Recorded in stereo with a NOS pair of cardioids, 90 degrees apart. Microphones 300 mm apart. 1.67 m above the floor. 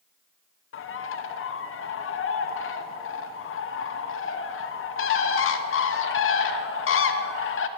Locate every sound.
0.7 s a bird: 50° left, 1.1 m